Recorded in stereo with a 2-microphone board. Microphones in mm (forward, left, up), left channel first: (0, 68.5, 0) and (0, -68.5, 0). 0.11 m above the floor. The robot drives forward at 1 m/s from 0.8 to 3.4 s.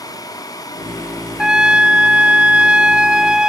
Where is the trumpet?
5° right (ahead or behind).